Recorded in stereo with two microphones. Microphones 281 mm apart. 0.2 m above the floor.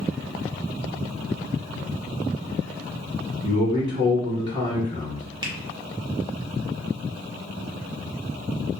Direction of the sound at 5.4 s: 20° right (ahead or behind).